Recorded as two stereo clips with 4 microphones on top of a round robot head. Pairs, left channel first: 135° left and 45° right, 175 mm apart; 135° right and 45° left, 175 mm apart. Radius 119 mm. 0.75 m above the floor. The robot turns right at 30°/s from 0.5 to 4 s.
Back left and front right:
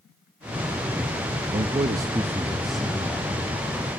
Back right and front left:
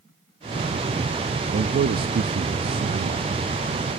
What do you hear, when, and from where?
1.5 s a man speaking: 10° left, 0.7 m; by 3.4 s 70° left, 0.7 m